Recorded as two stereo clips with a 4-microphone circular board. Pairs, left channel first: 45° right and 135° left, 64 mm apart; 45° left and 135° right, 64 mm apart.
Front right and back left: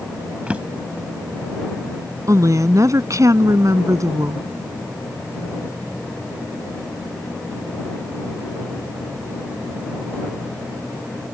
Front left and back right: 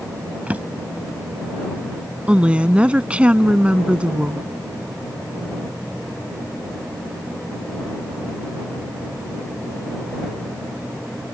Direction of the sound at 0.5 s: 175° right.